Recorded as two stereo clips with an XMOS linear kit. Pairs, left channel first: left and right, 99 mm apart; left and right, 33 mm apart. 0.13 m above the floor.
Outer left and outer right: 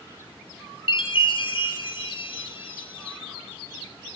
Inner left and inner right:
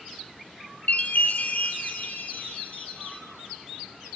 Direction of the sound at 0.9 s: 60° left (ahead or behind).